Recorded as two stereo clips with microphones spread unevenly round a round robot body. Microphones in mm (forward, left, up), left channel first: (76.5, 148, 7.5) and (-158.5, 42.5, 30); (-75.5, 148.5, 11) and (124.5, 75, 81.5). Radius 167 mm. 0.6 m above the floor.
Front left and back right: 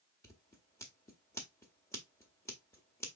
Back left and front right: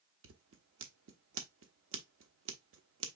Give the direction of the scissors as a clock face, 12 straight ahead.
2 o'clock.